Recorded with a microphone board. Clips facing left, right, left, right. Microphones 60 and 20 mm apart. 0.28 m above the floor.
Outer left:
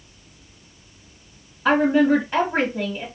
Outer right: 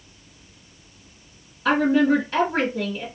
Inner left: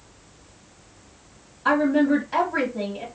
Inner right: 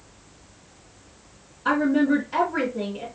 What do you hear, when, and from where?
1.6 s a woman speaking: 20° left (ahead or behind), 1.3 m